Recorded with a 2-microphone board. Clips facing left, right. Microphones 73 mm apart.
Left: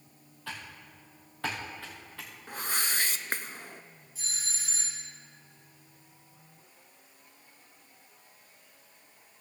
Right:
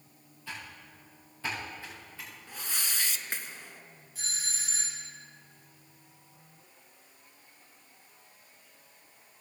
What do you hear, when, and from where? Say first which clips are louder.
0.5 s typing on a keyboard: left 1 dB; 65° left (ahead or behind), 3.5 m
2.5 s a whoosh: left 6 dB; 50° left (ahead or behind), 0.5 m
4.2 s a doorbell: right 2 dB; 55° right (ahead or behind), 4 m